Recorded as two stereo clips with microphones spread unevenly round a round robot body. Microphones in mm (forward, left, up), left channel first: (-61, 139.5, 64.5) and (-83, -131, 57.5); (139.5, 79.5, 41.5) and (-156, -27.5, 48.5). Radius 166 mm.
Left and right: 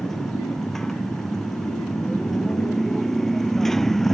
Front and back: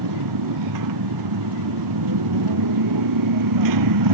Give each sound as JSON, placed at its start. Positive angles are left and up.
{"t": 0.0, "sound": "a motorcycle", "azimuth_deg": 175}